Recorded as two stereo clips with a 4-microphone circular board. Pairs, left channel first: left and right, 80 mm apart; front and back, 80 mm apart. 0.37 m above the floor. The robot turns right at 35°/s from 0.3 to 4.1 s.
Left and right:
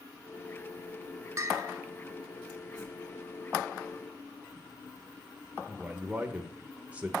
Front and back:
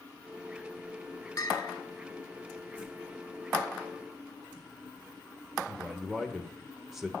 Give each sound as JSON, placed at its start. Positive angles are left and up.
{"t": 1.4, "sound": "a bell", "azimuth_deg": -40, "distance_m": 0.8}
{"t": 2.8, "sound": "a whoosh", "azimuth_deg": 115, "distance_m": 2.0}
{"t": 5.7, "sound": "a man speaking", "azimuth_deg": -100, "distance_m": 0.9}